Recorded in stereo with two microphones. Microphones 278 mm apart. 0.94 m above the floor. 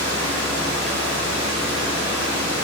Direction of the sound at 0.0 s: 80° right.